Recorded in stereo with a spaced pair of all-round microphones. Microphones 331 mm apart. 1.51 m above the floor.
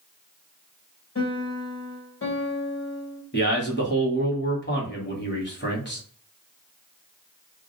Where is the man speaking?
35° left (ahead or behind), 1.1 m.